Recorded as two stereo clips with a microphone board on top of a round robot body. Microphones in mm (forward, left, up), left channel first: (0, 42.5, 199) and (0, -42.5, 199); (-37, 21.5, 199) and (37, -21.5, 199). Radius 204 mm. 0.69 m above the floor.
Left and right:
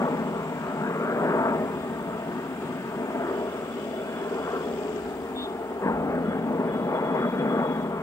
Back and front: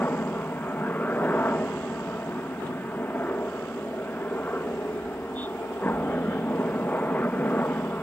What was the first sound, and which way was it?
A helicopter, 95° left.